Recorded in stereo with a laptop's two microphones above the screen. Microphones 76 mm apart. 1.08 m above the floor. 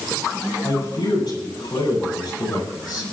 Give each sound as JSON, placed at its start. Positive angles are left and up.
{"t": 0.6, "sound": "a man speaking", "side_deg": 70, "distance_m": 7.5}